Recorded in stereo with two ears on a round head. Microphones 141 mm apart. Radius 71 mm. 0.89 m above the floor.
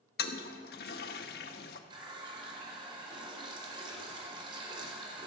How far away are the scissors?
No scissors in this recording.